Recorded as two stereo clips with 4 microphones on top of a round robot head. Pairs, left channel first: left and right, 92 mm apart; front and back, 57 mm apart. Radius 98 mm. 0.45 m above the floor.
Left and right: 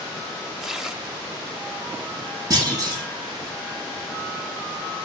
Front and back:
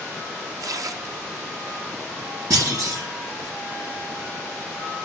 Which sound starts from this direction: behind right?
A clunk, at 2.5 s.